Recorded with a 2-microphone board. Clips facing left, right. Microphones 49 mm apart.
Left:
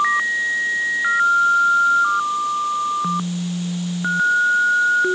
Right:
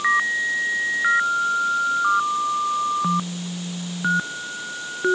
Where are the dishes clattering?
I don't hear dishes clattering.